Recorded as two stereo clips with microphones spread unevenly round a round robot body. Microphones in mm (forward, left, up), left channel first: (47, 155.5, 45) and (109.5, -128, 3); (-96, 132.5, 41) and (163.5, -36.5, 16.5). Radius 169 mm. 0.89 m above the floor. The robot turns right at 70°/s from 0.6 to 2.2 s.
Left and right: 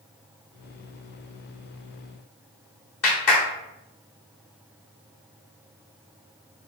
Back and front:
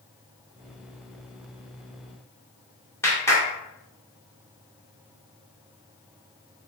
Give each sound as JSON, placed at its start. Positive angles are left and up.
{"t": 3.0, "sound": "a clap", "azimuth_deg": 65, "distance_m": 2.5}